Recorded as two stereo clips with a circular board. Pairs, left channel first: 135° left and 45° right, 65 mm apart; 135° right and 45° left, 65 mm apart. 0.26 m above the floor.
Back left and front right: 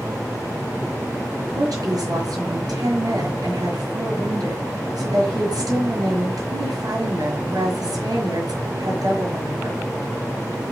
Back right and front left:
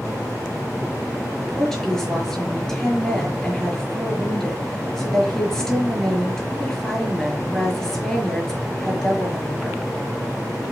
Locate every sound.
1.4 s a woman speaking: 50° right, 5.5 m